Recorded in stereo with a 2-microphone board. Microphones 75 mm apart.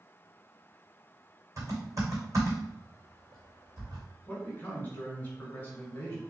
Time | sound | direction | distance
1.6 | typing on a keyboard | 45° right (ahead or behind) | 2.5 m
4.3 | a man speaking | 25° left (ahead or behind) | 1.9 m